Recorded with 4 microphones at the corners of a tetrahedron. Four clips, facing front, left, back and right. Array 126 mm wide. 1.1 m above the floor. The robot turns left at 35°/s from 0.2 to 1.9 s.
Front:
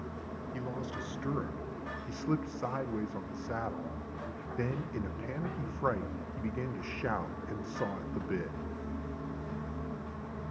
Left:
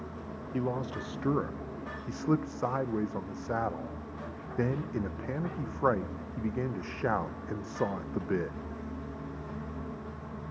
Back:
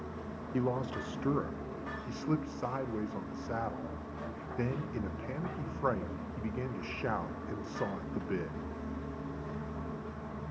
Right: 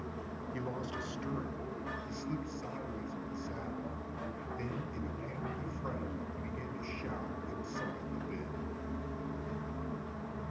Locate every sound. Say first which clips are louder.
0.5 s a man speaking: left 8 dB, back 7 dB; 140° left, 0.9 m; by 8.6 s 95° left, 0.9 m